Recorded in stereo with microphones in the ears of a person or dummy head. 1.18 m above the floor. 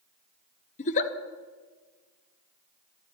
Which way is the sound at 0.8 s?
40° left (ahead or behind).